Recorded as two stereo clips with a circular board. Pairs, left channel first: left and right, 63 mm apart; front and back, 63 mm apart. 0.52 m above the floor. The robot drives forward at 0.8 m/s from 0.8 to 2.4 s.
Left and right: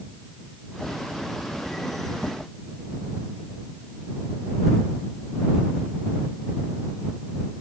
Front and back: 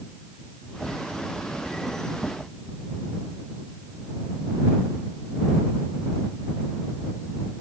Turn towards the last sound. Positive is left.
No sound to turn to.